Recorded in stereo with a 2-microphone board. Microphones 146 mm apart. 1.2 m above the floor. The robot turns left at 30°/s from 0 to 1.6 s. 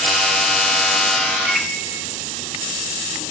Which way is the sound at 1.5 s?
10° right (ahead or behind).